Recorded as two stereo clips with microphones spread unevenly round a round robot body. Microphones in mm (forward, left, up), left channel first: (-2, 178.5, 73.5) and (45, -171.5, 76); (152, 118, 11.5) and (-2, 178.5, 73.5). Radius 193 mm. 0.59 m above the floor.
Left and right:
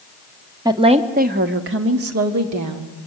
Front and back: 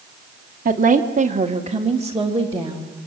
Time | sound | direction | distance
0.7 | a woman speaking | 160° right | 1.5 m